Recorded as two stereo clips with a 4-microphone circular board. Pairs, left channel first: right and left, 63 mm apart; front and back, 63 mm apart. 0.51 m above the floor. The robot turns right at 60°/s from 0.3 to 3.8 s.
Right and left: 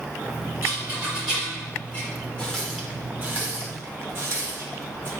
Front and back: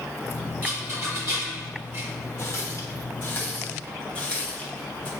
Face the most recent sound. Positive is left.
turn(degrees=65)